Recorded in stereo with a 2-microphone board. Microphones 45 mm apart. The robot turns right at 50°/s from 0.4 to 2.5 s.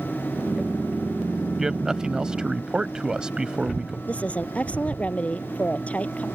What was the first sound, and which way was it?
A man speaking, 10° right (ahead or behind).